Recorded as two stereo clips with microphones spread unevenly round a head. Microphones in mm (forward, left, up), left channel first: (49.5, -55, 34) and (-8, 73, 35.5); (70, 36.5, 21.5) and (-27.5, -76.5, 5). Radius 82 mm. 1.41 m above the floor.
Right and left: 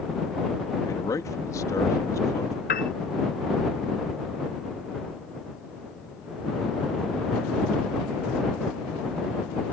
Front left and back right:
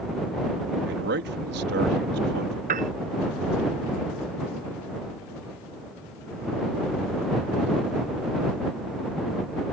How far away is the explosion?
I don't hear an explosion.